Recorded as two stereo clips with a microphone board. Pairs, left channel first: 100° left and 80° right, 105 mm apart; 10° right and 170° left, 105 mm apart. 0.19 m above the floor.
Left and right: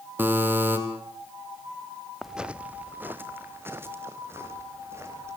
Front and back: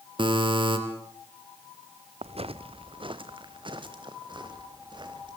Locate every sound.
0.2 s a buzzer: 150° right, 4 m
2.2 s footsteps: 170° right, 0.7 m; by 5.4 s 145° right, 5.5 m